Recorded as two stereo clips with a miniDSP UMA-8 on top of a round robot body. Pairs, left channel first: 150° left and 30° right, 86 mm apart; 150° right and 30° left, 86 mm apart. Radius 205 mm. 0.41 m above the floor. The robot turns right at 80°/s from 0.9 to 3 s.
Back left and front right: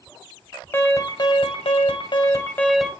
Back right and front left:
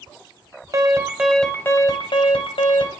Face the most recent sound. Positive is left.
turn(degrees=-110)